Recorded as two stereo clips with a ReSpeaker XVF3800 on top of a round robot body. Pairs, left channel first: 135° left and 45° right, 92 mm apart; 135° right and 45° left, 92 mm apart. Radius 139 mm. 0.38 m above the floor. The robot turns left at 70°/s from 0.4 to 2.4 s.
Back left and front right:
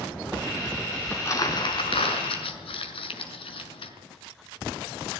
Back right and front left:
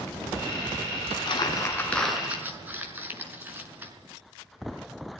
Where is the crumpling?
155° right, 5.5 m; by 3.9 s 115° left, 5.5 m.